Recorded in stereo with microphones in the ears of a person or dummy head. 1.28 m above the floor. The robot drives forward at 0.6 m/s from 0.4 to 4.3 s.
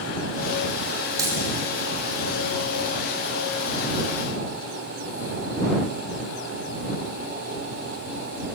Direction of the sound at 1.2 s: 20° right (ahead or behind).